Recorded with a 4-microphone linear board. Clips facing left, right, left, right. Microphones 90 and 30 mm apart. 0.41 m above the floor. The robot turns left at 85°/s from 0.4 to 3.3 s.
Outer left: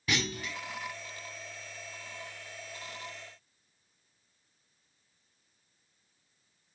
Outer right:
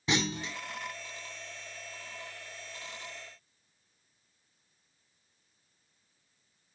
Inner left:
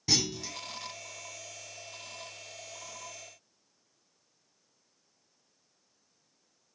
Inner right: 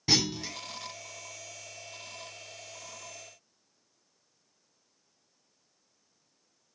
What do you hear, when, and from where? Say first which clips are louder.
0.1 s a clunk: outer right 2 dB, inner right 3 dB; 25° right (ahead or behind), 1.1 m